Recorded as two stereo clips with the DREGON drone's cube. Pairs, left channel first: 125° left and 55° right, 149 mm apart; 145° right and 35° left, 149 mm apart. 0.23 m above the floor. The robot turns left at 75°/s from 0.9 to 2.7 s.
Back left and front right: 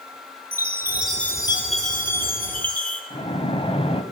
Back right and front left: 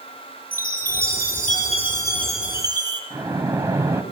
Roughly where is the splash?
Left.